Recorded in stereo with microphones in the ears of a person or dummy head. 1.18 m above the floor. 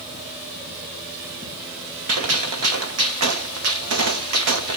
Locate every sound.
2.1 s a gunshot: 70° right (ahead or behind), 0.9 m